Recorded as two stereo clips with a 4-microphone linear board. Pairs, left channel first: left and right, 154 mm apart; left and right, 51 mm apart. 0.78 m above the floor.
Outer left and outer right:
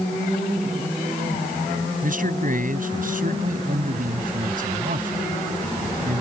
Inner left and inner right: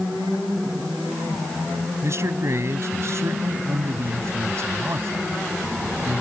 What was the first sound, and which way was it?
A man speaking, 55° right (ahead or behind).